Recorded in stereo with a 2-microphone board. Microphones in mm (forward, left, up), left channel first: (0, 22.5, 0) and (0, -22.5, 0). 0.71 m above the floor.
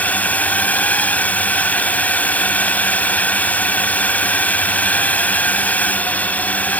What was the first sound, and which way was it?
A drone, 30° left (ahead or behind).